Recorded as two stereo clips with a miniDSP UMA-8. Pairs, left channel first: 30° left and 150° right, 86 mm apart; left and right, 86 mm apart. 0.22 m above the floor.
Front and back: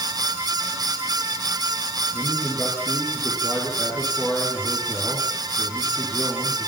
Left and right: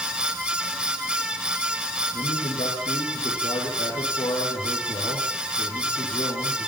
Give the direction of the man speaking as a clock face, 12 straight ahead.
9 o'clock.